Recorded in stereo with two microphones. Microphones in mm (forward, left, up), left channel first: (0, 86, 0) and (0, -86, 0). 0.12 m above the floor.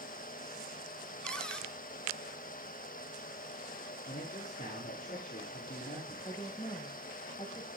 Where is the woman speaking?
25° left (ahead or behind), 6.5 m.